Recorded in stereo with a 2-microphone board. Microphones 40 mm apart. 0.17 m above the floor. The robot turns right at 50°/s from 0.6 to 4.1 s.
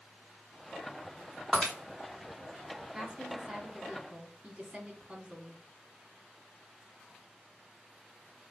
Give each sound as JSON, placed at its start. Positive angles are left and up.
{"t": 1.5, "sound": "breaking glass", "side_deg": 5, "distance_m": 3.0}
{"t": 2.9, "sound": "a woman speaking", "side_deg": -15, "distance_m": 1.3}